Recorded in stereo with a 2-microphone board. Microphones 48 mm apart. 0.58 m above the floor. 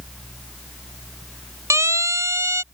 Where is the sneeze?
I don't hear a sneeze.